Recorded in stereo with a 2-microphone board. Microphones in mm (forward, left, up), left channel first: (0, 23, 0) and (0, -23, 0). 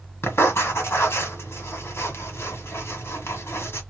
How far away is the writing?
About 1.7 m.